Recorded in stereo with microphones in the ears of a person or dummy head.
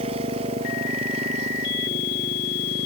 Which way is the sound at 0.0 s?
35° right (ahead or behind).